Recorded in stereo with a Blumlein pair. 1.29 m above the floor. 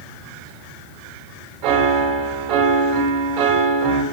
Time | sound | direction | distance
1.6 | a piano | 40° right | 2 m